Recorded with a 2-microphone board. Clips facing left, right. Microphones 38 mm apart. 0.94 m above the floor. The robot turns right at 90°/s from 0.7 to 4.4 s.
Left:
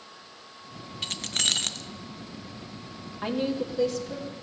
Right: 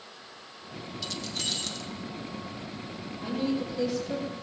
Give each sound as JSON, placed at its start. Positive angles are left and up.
{"t": 1.0, "sound": "keys jangling", "azimuth_deg": 50, "distance_m": 0.6}
{"t": 3.2, "sound": "a woman speaking", "azimuth_deg": 125, "distance_m": 2.5}